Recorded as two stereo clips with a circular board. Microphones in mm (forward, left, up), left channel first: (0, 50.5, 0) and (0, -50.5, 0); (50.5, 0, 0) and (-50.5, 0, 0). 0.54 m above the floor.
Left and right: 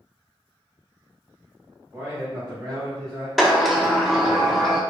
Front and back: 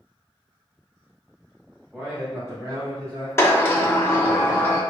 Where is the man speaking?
110° right, 1.4 m; by 3.3 s 155° right, 2.5 m.